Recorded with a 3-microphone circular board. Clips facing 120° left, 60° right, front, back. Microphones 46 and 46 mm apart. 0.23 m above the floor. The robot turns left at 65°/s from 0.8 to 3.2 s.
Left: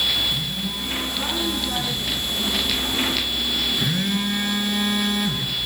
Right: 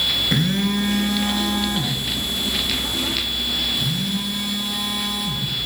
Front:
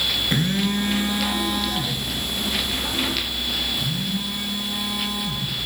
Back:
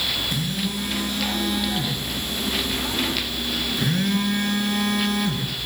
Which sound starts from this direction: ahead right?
A phone buzzing, at 0.3 s.